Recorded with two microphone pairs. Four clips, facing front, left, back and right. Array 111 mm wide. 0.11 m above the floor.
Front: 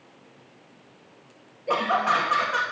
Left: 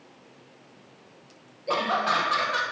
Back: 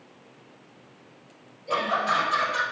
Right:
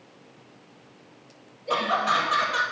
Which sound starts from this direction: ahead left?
Laughter, at 1.7 s.